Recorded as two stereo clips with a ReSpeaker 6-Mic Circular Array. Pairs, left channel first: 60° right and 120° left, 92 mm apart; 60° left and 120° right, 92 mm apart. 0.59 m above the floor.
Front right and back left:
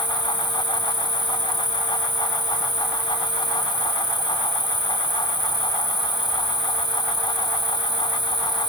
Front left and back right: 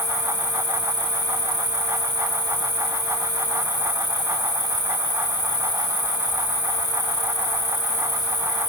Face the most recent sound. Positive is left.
turn(degrees=-85)